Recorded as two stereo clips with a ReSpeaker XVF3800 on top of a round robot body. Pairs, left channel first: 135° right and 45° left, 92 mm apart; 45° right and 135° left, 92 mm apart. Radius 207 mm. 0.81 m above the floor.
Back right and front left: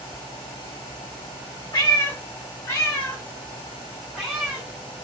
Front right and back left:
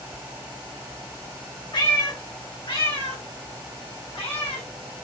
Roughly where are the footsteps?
I don't hear footsteps.